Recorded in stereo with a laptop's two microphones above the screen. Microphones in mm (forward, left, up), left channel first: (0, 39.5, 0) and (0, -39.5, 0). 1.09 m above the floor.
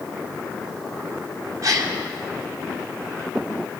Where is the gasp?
55° right (ahead or behind), 2.5 m.